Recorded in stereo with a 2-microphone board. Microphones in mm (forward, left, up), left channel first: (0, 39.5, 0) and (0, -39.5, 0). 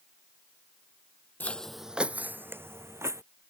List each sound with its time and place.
1.4 s footsteps: 20° left (ahead or behind); by 3.2 s 40° right (ahead or behind)